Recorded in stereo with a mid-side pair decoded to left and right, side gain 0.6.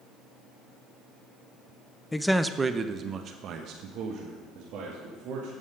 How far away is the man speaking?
About 0.6 m.